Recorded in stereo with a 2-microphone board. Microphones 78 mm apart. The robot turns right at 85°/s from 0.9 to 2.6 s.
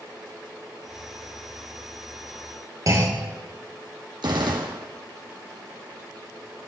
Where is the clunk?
45° right (ahead or behind), 2 m.